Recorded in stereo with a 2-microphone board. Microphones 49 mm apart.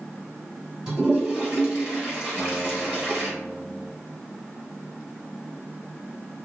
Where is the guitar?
30° left (ahead or behind), 1.3 m.